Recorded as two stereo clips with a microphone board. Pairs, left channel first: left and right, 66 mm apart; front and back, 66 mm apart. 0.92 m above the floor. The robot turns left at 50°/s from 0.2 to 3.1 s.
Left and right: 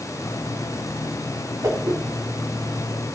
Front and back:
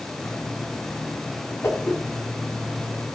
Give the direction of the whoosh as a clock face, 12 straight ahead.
2 o'clock.